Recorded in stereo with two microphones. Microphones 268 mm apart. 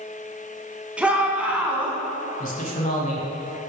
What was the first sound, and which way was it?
A shout, 5° right (ahead or behind).